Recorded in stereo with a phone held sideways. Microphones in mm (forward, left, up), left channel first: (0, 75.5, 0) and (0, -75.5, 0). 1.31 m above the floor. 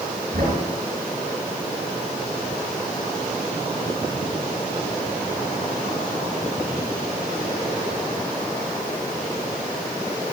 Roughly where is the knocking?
Right.